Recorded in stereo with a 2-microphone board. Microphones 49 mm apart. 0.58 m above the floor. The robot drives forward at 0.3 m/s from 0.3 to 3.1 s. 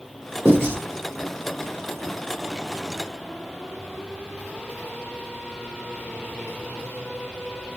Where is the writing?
50° right (ahead or behind), 1.5 m.